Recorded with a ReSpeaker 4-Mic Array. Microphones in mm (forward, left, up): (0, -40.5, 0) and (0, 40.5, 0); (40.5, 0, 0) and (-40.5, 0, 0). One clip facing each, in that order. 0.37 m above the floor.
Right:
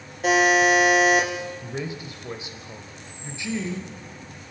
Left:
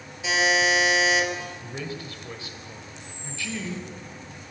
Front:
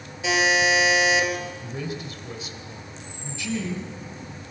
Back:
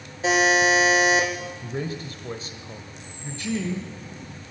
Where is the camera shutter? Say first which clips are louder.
Left 2 dB, front 2 dB; 105° left, 9 m.